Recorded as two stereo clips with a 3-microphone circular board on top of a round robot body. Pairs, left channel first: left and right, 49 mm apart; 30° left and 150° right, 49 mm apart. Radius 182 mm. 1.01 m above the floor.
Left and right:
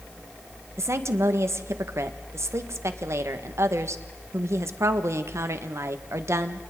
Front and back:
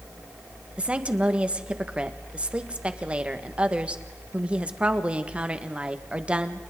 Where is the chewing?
No chewing in this recording.